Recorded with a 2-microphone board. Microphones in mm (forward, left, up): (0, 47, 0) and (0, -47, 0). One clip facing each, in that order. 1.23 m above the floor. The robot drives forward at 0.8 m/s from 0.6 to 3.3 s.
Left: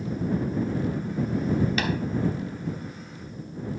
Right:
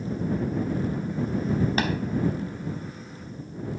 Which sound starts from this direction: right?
Tapping, at 1.8 s.